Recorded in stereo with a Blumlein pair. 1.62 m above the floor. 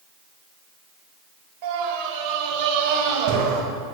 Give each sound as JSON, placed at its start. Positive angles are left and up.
{"t": 1.6, "sound": "a scream", "azimuth_deg": -45, "distance_m": 8.0}